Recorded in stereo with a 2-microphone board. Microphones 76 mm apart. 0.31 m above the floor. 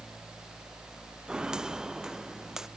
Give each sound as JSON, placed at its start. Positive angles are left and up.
{"t": 1.3, "sound": "footsteps", "side_deg": -10}